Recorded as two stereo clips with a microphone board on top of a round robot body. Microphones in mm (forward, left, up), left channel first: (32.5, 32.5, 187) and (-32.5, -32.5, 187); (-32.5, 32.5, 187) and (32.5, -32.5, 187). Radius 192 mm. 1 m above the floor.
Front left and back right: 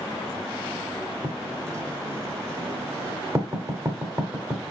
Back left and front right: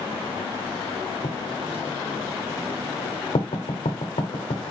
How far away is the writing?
About 1.1 m.